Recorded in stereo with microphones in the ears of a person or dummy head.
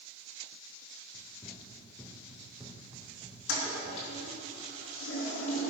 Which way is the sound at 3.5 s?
85° left.